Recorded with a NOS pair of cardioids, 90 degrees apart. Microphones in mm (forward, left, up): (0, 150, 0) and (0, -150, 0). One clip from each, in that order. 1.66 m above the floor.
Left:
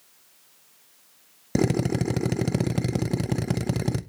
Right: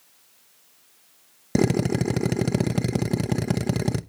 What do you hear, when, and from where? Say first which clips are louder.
1.6 s a drill: right 2 dB; 10° right, 0.6 m